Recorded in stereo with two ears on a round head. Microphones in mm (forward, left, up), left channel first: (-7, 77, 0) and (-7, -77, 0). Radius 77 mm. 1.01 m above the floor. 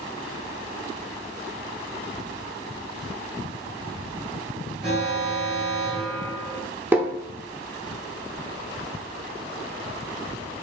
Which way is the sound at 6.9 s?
10° right (ahead or behind).